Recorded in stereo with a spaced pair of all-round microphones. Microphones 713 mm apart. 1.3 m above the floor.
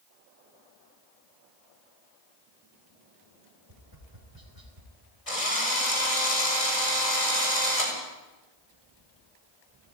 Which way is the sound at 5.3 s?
50° left (ahead or behind).